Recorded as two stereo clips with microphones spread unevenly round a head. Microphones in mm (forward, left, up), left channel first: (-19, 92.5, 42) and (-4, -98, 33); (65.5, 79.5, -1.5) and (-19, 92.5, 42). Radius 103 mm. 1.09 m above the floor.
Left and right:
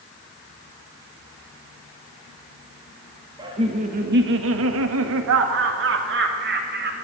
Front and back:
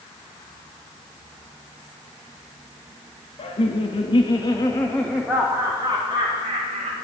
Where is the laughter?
15° right, 1.7 m; by 6.9 s 125° right, 3.5 m.